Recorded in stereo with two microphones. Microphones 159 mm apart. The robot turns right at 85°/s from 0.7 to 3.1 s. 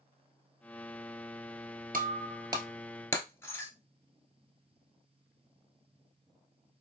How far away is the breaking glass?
About 0.9 m.